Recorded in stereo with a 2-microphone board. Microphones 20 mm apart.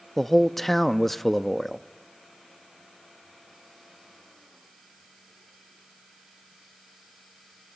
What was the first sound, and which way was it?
A man speaking, 10° left (ahead or behind).